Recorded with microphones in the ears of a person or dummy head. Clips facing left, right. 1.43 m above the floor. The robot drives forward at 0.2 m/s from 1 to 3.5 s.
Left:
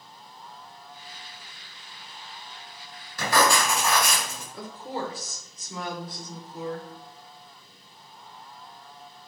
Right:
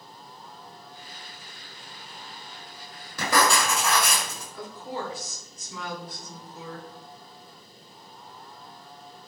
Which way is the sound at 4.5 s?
35° left (ahead or behind).